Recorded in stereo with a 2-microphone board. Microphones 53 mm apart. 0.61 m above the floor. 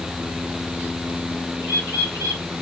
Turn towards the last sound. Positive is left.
turn(degrees=-55)  # may be behind; listen again after turning